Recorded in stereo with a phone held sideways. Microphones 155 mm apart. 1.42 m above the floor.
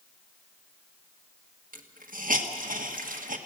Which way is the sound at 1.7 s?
70° right (ahead or behind).